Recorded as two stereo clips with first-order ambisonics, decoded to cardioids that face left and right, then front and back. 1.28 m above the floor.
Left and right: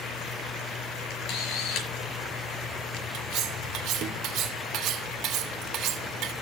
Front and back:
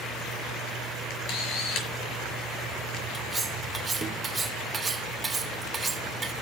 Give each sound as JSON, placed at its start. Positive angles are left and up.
{"t": 1.1, "sound": "a camera shutter", "azimuth_deg": 45, "distance_m": 5.0}
{"t": 3.1, "sound": "cutlery clinking", "azimuth_deg": -115, "distance_m": 0.6}